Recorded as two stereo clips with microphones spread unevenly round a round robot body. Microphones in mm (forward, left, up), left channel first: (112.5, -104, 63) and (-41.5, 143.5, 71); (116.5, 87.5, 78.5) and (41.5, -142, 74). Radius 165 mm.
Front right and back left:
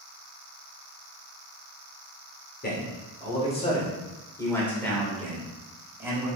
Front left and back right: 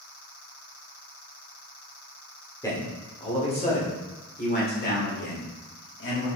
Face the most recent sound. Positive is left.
turn(degrees=40)